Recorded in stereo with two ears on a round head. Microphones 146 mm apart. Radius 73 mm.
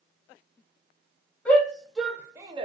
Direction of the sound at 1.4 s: 10° left (ahead or behind).